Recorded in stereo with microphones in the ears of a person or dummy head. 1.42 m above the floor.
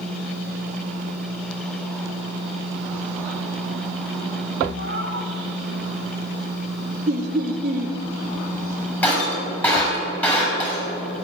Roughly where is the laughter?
Right.